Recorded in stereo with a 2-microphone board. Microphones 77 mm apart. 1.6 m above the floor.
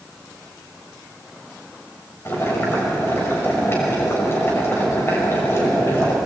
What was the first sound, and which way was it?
Boiling, 35° left (ahead or behind).